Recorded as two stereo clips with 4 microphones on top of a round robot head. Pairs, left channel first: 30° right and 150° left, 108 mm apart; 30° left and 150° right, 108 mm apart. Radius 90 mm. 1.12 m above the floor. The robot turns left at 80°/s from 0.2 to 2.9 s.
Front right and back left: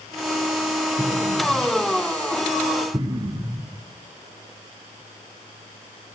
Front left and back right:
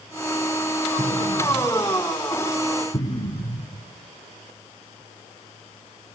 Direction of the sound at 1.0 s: 115° right.